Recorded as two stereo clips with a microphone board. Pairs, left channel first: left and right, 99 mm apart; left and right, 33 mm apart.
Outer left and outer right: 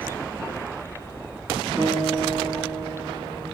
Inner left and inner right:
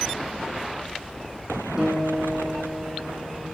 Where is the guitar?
20° right (ahead or behind), 3 m.